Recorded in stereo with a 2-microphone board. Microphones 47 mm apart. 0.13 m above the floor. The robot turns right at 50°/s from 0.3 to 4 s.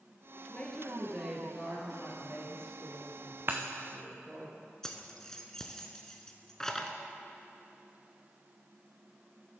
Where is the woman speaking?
150° left, 2 m; by 4.5 s 35° right, 2 m.